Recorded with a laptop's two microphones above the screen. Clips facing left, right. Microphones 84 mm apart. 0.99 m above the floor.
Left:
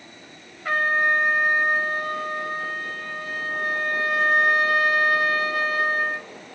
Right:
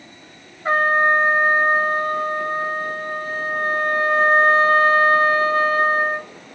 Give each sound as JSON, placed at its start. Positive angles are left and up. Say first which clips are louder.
{"t": 0.7, "sound": "a trumpet", "louder": "right 5 dB", "side_deg": -30, "distance_m": 0.8}